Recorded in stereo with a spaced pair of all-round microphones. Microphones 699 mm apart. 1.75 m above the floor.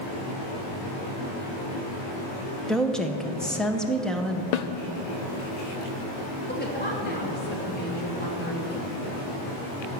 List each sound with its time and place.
2.7 s a woman speaking: centre (ahead or behind), 0.7 m
4.5 s a snare drum: 70° left (ahead or behind), 0.7 m
6.5 s a woman speaking: 15° left (ahead or behind), 2.5 m